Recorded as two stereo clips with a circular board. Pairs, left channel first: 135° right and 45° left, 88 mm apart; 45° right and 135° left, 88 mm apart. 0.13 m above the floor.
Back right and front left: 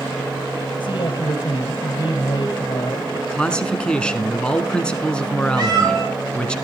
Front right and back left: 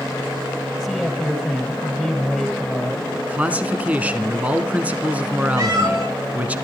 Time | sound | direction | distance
0.8 | a man speaking | 125° right | 3 m
3.3 | a man speaking | 170° left | 1.0 m
5.6 | a cat meowing | 85° left | 5.5 m